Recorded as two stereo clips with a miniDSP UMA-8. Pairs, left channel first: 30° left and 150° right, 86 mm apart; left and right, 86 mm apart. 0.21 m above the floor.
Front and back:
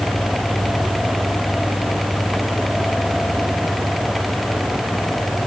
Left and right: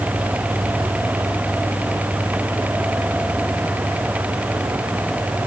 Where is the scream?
No scream in this recording.